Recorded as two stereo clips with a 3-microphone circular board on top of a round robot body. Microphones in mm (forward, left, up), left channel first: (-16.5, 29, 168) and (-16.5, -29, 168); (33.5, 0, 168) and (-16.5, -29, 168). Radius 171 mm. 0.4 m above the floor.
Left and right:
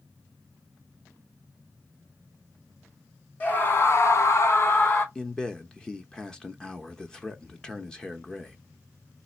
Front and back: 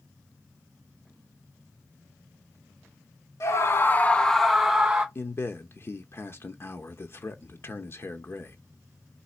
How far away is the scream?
About 1.2 m.